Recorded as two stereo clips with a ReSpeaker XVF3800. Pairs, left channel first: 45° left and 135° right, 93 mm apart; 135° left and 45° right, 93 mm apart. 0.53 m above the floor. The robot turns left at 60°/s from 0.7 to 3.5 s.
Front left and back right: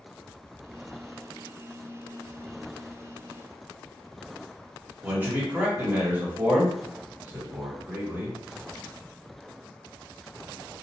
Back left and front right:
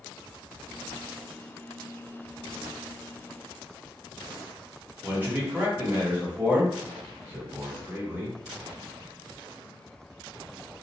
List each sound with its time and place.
5.0 s a man speaking: 90° right, 1.2 m